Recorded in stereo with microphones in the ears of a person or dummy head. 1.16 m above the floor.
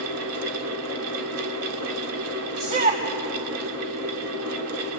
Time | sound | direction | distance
0.0 | a fan | 85° right | 3 m
2.6 | a shout | 35° right (ahead or behind) | 2.0 m